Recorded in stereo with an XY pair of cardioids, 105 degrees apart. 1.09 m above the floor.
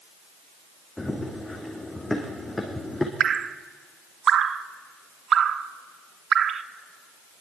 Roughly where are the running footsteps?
Ahead.